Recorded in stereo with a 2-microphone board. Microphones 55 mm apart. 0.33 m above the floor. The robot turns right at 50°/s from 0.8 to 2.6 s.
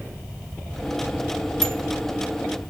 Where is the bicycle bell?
60° right (ahead or behind), 2.5 m; by 1.8 s 50° right (ahead or behind), 2.5 m.